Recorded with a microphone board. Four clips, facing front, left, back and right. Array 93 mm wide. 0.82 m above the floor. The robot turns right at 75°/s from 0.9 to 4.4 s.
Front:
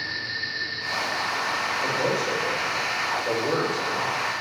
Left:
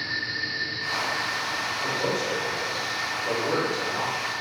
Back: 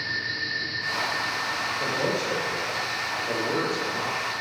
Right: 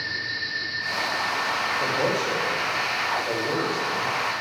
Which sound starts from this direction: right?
A man speaking, at 1.8 s.